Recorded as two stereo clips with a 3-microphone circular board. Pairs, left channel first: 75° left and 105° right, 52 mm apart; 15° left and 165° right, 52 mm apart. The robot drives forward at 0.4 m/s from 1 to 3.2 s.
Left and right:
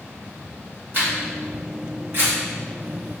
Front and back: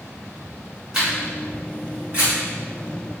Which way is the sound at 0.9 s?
100° right.